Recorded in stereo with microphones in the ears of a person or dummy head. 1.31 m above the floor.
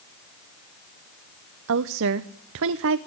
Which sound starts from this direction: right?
A woman speaking, at 1.7 s.